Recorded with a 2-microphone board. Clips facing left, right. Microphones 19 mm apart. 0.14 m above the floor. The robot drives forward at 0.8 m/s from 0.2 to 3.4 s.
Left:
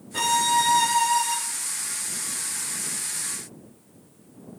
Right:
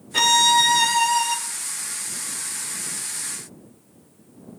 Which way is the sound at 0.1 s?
55° right (ahead or behind).